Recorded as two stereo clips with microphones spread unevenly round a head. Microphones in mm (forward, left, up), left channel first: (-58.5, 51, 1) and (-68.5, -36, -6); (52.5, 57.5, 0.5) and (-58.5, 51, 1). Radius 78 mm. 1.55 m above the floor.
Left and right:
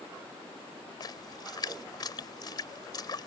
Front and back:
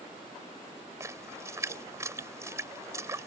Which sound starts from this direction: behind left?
A splash, at 1.0 s.